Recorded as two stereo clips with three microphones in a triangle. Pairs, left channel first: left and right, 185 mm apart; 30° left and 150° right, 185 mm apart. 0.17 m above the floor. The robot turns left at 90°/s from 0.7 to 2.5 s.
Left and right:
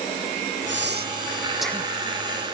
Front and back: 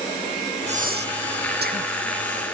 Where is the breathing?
95° right; by 1.9 s 155° left.